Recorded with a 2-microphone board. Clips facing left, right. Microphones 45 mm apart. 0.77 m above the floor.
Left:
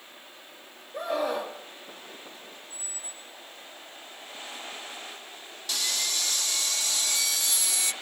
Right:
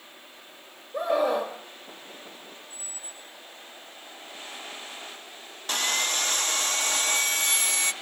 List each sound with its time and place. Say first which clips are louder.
0.9 s a scream: right 4 dB; 25° right (ahead or behind), 3 m
2.7 s a squeak: even; 40° right (ahead or behind), 6.5 m
5.7 s sawing: right 5 dB; 40° right (ahead or behind), 1.0 m